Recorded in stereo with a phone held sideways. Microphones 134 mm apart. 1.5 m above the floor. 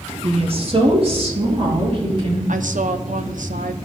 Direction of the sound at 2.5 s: 70° right (ahead or behind).